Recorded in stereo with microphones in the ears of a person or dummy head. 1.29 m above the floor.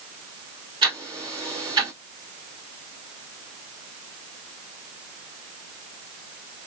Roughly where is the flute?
No flute in this recording.